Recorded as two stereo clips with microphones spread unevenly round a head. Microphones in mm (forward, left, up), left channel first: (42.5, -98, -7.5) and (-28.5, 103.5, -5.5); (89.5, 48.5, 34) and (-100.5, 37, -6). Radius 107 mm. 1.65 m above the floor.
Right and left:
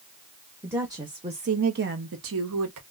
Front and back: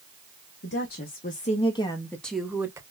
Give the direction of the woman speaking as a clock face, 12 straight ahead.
11 o'clock.